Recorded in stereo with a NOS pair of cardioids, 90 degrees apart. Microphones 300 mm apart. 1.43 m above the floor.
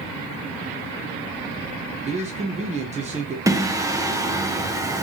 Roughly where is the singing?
Ahead.